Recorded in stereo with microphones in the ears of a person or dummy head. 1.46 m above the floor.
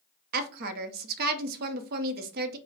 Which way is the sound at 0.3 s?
45° right (ahead or behind).